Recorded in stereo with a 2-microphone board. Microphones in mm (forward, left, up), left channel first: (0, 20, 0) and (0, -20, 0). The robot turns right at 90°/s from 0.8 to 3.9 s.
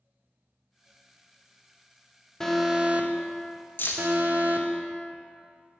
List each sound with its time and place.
2.4 s an alarm: 165° left, 0.6 m; by 4.7 s 60° right, 0.6 m
3.8 s keys jangling: 55° left (ahead or behind), 0.6 m; by 4.1 s 65° left (ahead or behind), 0.6 m